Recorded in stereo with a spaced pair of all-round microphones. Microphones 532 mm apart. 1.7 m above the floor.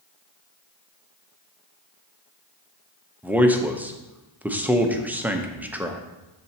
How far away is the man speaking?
About 0.7 m.